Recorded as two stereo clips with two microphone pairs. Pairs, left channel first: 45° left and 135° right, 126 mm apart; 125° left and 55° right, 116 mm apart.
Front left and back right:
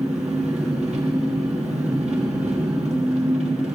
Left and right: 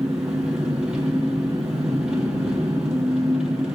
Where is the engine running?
140° right, 2.5 m.